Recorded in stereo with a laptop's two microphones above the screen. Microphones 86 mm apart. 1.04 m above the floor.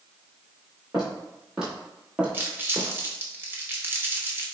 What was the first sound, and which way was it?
Footsteps, 5° right (ahead or behind).